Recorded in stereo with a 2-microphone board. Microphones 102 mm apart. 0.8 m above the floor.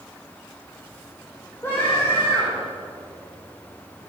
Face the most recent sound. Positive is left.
turn(degrees=20)  # may be behind; listen again after turning